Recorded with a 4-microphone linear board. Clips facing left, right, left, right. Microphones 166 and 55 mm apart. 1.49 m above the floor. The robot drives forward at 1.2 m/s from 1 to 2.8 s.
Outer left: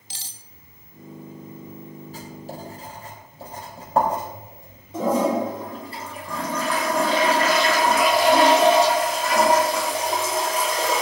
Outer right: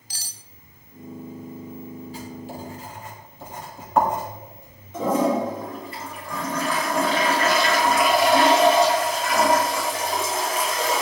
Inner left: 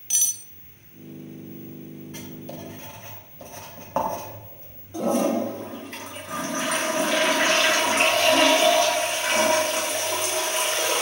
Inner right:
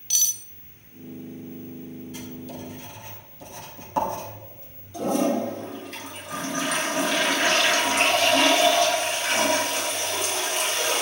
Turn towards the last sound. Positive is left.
turn(degrees=35)  # may be behind; listen again after turning